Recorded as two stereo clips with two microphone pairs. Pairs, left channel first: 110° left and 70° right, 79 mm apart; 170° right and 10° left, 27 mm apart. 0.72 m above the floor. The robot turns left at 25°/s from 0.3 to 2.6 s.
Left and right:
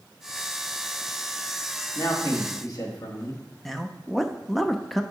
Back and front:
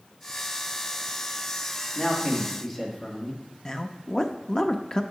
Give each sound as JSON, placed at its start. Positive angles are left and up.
{"t": 1.9, "sound": "a man speaking", "azimuth_deg": 135, "distance_m": 1.6}
{"t": 3.6, "sound": "a man speaking", "azimuth_deg": -175, "distance_m": 0.5}